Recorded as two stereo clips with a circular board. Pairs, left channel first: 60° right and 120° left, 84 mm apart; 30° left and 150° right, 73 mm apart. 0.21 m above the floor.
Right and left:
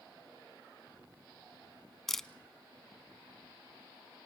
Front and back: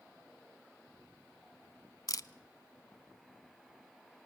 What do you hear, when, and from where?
2.1 s a camera shutter: 25° left, 0.6 m